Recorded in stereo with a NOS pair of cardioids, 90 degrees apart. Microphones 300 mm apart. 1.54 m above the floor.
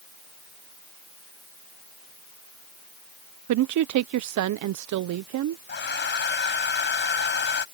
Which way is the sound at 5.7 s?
35° left.